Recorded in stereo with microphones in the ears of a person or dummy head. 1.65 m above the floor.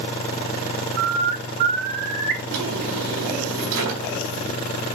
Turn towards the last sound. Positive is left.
turn(degrees=-65)  # may be behind; listen again after turning